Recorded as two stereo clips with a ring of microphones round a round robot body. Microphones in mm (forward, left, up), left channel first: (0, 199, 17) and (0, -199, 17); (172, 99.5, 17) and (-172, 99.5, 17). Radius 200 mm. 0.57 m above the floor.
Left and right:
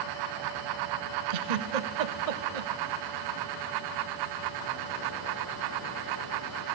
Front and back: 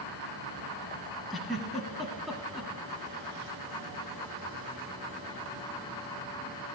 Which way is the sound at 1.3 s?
90° right.